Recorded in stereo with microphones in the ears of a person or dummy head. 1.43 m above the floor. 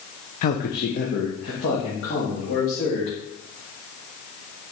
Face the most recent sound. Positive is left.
turn(degrees=65)  # may be behind; listen again after turning